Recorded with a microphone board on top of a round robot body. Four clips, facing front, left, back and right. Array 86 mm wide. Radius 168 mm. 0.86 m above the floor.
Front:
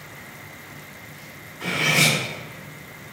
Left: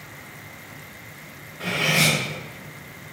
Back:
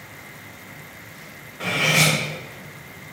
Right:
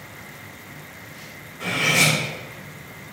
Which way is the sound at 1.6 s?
170° left.